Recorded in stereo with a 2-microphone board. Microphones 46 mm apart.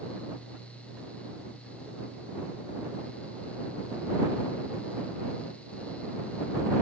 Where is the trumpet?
I don't hear a trumpet.